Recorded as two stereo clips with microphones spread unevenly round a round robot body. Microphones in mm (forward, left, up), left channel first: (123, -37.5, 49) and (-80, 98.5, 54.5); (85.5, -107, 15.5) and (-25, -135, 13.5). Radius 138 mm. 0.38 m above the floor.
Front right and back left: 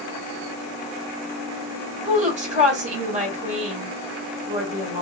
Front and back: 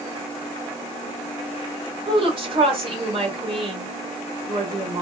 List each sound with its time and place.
2.0 s a woman speaking: 160° right, 1.9 m